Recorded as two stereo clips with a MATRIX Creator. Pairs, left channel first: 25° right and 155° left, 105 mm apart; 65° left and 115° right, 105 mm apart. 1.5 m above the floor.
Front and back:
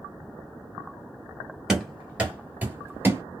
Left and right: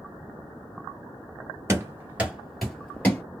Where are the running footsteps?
125° right, 1.6 m; by 3.2 s 120° left, 1.6 m.